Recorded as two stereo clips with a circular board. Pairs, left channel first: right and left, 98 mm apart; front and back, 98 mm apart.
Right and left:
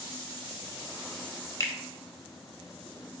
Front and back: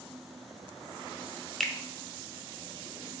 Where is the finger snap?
85° right, 0.6 m.